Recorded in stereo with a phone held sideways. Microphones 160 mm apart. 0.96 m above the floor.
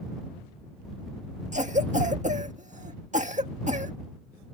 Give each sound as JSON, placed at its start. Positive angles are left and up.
{"t": 1.5, "sound": "a cough", "side_deg": -50}